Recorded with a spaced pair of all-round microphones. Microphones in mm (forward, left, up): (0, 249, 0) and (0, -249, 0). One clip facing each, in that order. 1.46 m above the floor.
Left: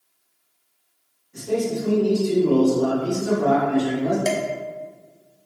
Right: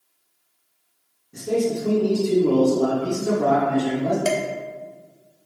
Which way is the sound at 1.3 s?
65° right (ahead or behind).